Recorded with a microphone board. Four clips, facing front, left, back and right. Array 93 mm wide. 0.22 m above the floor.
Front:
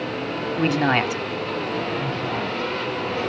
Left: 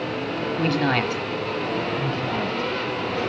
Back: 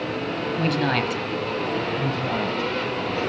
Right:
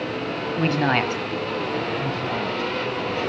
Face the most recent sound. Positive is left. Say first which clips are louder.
# even, back 1 dB
turn(degrees=170)